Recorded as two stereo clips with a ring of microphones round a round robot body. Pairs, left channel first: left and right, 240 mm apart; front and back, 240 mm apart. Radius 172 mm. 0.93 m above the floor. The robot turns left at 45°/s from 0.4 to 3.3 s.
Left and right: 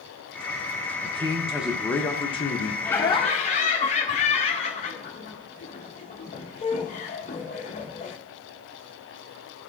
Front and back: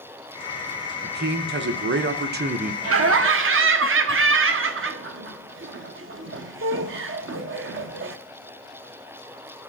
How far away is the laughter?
About 0.7 m.